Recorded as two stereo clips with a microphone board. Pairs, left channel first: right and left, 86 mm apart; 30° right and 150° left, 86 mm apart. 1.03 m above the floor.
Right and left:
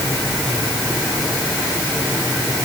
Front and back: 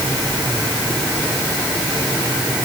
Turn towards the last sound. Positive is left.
No sound to turn to.